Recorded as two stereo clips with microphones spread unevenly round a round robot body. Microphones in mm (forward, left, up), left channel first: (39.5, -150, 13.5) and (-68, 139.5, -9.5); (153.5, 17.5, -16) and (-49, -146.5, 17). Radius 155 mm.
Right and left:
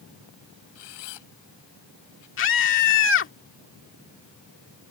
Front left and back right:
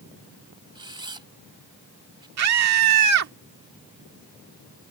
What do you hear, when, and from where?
0.8 s a camera shutter: 70° right
2.4 s a scream: 120° right